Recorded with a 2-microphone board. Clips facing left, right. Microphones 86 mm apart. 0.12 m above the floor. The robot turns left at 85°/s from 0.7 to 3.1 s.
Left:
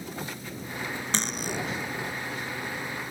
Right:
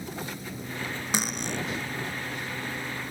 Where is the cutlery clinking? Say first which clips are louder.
Right 2 dB; 10° right (ahead or behind); by 1.6 s 15° left (ahead or behind).